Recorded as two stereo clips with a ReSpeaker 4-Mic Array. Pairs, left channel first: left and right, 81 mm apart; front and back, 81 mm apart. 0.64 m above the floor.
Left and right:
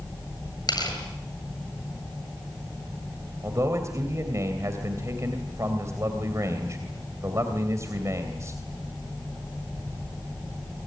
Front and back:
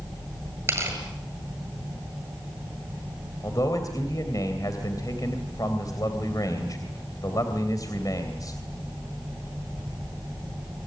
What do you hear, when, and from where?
0.7 s tearing paper: 120° left, 8 m
3.4 s a man speaking: 40° right, 3 m